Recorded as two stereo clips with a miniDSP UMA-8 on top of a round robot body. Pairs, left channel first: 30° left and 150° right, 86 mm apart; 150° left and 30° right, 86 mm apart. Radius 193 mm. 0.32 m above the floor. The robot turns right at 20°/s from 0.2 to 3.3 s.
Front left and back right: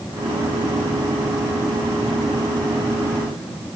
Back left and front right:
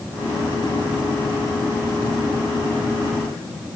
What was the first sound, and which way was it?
Only background noise.